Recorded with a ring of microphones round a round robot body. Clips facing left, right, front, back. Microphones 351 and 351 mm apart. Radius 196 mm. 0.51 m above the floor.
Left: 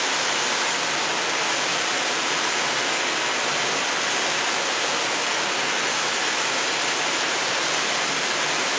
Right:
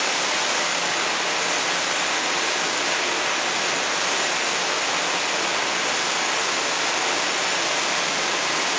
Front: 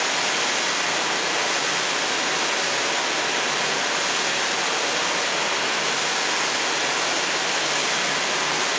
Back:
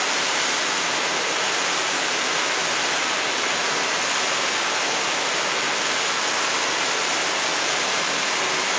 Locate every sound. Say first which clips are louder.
0.0 s running water: even, even; 70° right, 1.7 m